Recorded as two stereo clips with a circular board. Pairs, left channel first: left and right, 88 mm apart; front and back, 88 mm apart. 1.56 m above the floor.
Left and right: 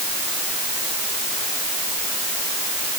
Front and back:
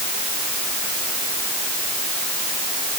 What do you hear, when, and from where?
Only background noise.